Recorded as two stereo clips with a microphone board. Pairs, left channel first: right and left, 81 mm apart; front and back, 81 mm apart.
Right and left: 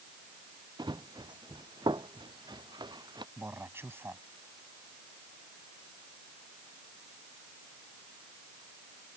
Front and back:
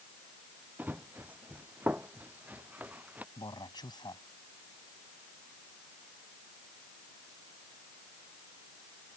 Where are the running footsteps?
110° left.